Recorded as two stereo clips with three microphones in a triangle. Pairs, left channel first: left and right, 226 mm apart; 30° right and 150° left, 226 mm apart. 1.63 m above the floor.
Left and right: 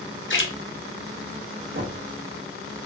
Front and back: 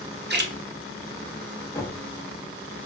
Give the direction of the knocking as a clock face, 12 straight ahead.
3 o'clock.